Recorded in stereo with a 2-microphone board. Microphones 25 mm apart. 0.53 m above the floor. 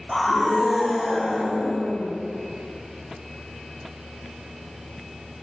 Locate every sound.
0.1 s a scream: centre (ahead or behind), 1.4 m; by 2.1 s 20° right (ahead or behind), 3 m